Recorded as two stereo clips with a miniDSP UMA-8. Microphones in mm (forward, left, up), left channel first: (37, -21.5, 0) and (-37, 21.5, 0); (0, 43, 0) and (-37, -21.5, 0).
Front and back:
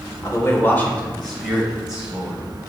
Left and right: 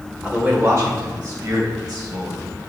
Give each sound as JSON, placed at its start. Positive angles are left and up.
{"t": 0.2, "sound": "a man speaking", "azimuth_deg": -50, "distance_m": 1.5}